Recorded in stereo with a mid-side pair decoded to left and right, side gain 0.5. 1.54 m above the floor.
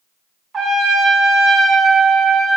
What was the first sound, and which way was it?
A trumpet, 50° right.